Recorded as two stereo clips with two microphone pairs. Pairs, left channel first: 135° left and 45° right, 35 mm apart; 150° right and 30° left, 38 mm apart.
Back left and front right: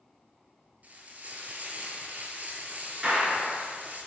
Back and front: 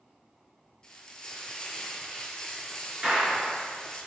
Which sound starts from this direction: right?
Frying, at 0.8 s.